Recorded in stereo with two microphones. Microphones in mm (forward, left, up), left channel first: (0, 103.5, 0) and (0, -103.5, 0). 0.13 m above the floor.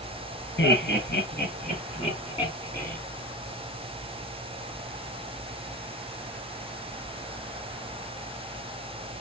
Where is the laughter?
55° left (ahead or behind), 2 m; by 3.0 s 5° left (ahead or behind), 1.6 m.